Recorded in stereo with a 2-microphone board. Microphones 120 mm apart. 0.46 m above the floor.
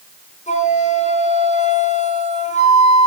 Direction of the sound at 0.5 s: 80° left.